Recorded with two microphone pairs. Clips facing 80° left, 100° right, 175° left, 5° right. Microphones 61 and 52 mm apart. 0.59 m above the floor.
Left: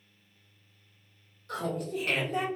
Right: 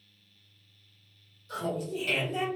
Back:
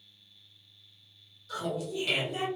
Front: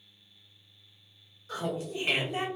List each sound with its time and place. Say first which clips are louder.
1.5 s laughter: even, even; 50° left, 1.0 m